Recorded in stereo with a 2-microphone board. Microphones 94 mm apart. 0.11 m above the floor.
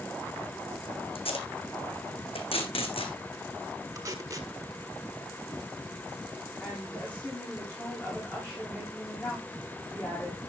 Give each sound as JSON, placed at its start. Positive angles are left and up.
{"t": 1.1, "sound": "tape being pulled", "side_deg": 80, "distance_m": 2.5}
{"t": 4.0, "sound": "tape being pulled", "side_deg": -35, "distance_m": 1.8}
{"t": 6.6, "sound": "a woman speaking", "side_deg": 15, "distance_m": 8.0}